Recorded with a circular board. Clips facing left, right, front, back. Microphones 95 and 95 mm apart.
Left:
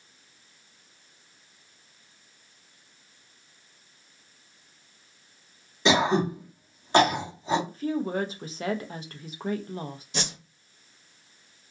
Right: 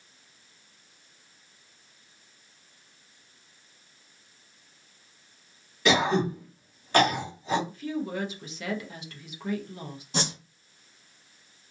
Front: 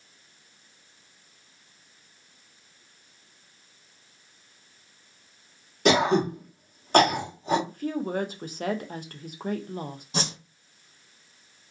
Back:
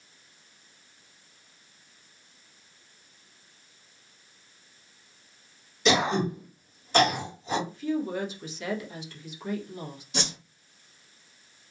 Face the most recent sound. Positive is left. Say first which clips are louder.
# right 4 dB, front 2 dB
turn(degrees=-45)